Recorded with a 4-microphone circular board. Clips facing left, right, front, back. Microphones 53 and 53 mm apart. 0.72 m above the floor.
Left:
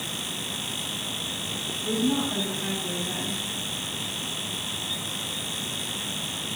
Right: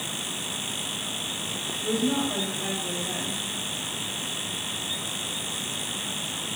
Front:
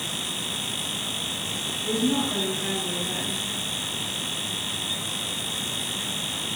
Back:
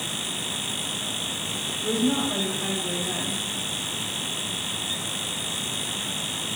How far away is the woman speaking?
About 3.5 m.